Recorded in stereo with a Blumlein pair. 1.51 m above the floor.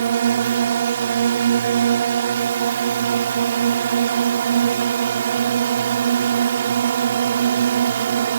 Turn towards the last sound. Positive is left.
turn(degrees=-65)